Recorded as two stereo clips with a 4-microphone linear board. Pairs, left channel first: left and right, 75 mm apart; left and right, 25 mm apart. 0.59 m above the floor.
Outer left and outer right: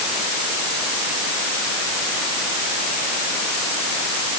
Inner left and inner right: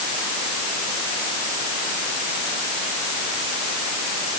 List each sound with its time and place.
Only background noise.